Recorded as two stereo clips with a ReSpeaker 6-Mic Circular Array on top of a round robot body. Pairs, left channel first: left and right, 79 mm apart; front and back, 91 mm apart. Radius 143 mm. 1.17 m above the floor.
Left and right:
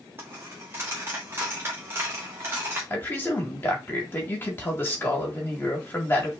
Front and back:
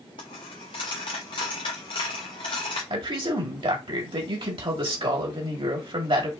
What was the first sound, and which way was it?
A dropped coin, 35° right.